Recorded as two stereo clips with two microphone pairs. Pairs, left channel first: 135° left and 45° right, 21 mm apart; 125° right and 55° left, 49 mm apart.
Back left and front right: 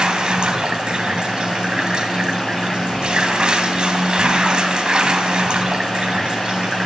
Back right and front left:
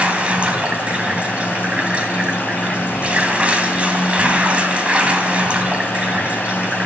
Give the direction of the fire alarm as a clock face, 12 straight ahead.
No fire alarm in this recording.